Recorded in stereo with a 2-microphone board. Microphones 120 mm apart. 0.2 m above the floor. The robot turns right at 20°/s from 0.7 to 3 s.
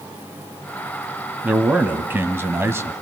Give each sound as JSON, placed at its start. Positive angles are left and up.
{"t": 1.4, "sound": "a man speaking", "side_deg": -15, "distance_m": 1.1}